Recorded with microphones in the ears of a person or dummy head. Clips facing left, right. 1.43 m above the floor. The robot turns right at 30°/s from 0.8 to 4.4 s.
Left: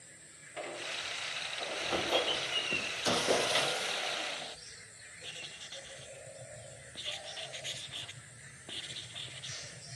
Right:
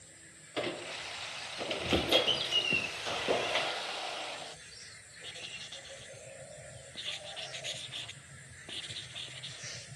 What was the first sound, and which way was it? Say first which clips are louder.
A squeak: right 5 dB; 70° right.